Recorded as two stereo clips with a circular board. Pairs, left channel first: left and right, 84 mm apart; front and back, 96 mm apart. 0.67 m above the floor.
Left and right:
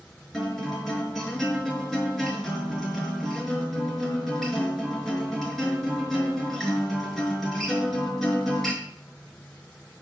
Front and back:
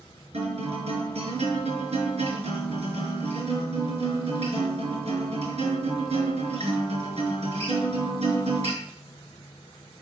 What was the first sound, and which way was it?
A guitar, 175° left.